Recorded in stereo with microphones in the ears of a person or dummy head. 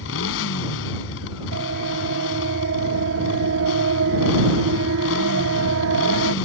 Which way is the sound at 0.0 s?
75° left (ahead or behind).